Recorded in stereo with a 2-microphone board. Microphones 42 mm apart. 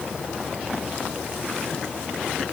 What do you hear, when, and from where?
Only background noise.